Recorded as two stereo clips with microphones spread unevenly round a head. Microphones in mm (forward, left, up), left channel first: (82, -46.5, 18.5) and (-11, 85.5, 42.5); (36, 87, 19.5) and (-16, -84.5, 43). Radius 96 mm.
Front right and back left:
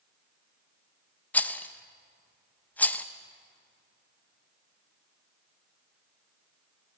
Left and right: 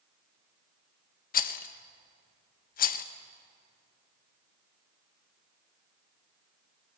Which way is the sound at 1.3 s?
30° left.